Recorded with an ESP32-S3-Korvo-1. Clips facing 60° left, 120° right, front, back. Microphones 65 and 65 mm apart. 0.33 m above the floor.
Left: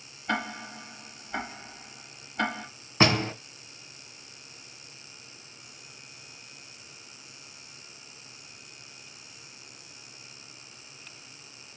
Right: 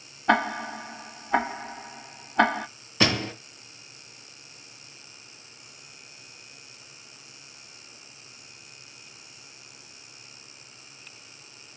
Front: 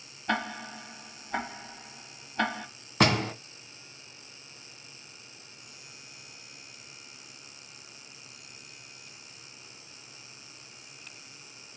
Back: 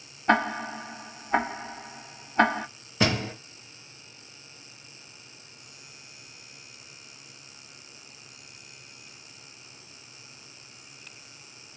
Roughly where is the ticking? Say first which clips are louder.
Right 8 dB, back 8 dB; behind right.